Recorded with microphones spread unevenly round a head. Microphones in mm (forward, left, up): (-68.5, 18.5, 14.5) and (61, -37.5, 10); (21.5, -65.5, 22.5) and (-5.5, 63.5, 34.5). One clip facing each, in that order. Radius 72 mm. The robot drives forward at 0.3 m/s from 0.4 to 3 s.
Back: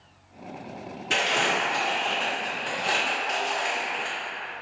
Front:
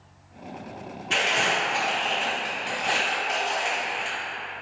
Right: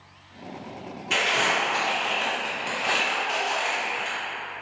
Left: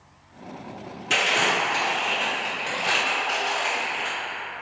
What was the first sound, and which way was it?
Crumpling, 135° left.